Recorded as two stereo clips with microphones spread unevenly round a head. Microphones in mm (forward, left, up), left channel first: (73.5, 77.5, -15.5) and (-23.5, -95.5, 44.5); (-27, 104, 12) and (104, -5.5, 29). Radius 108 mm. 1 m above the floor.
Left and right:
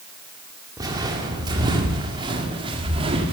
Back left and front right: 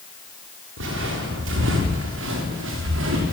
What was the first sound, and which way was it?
Footsteps, 50° right.